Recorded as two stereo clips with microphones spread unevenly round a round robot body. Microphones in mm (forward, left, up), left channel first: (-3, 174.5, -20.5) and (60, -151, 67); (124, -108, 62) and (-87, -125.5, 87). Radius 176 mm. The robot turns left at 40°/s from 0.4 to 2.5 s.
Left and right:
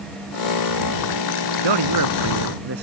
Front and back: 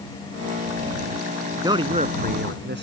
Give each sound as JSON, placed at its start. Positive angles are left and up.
{"t": 1.6, "sound": "a man speaking", "azimuth_deg": -100}